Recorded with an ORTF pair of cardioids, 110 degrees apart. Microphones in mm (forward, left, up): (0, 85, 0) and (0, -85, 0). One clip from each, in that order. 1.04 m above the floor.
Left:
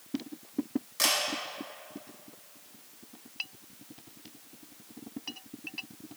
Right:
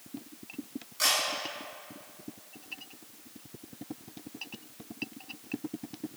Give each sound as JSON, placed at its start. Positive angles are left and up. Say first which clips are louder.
{"t": 1.0, "sound": "a camera shutter", "louder": "even", "azimuth_deg": 45, "distance_m": 1.5}